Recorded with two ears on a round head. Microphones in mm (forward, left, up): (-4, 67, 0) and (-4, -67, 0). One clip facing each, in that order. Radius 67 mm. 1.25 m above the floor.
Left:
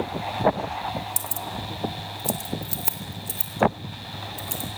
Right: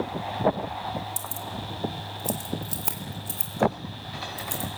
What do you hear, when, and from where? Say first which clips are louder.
1.2 s keys jangling: left 2 dB; 20° left (ahead or behind), 1.1 m; by 4.8 s centre (ahead or behind), 5 m